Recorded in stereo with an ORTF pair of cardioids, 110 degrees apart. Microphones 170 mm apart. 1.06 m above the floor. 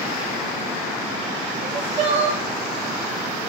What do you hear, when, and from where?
1.6 s crying: 45° right, 1.3 m